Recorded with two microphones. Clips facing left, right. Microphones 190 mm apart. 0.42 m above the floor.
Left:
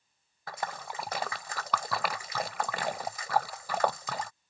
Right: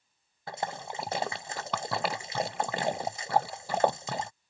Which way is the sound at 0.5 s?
25° right (ahead or behind).